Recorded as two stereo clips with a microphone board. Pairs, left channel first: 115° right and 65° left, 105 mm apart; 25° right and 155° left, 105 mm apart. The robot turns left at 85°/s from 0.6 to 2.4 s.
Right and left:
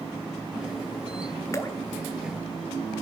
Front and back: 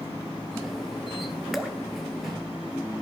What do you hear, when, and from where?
1.5 s dripping: 110° right, 0.9 m; by 1.8 s 130° right, 0.9 m